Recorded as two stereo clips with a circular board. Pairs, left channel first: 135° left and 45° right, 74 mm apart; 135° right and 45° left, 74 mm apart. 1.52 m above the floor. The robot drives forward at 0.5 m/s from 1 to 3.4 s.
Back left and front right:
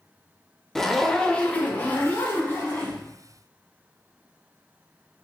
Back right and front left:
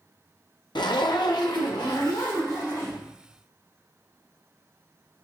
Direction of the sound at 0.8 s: 140° right.